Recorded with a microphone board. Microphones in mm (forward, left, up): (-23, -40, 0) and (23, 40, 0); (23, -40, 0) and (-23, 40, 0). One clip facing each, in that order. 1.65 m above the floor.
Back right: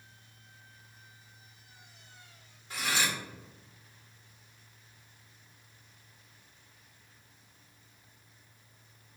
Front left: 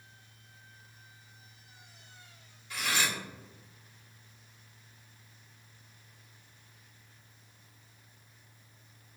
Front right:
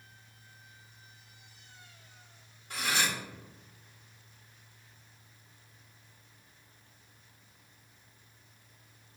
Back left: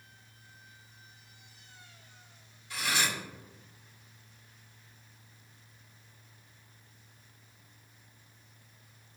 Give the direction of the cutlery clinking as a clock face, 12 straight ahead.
3 o'clock.